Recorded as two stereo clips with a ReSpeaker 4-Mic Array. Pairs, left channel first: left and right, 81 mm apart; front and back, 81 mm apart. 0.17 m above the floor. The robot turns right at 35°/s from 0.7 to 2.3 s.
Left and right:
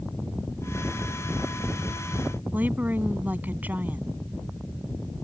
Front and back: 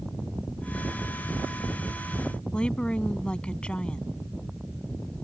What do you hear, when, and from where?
2.5 s a woman speaking: 60° right